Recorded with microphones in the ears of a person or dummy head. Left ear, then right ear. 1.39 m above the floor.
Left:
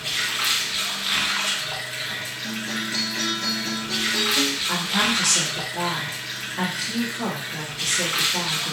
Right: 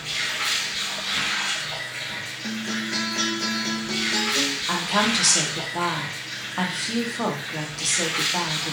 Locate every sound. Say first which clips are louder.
0.0 s running water: left 2 dB; 40° left (ahead or behind), 0.8 m
2.4 s a guitar: right 1 dB; 40° right (ahead or behind), 0.7 m
4.7 s a woman speaking: even; 60° right (ahead or behind), 0.8 m